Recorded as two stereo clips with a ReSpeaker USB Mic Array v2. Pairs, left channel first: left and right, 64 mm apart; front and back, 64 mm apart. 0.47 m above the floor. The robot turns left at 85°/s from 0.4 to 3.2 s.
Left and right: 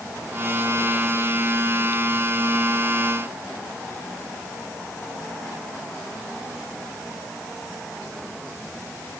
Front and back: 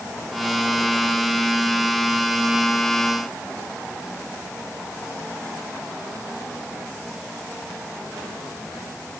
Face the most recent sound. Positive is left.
No sound to turn to.